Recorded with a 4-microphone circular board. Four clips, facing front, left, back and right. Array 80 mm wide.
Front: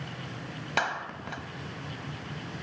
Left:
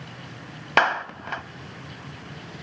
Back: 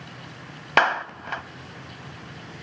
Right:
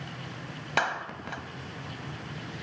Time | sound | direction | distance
0.8 | a clap | 140° left | 1.1 m